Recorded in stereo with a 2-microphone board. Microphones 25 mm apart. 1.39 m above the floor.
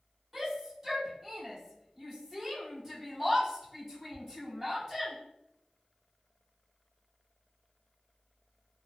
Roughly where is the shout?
Centre.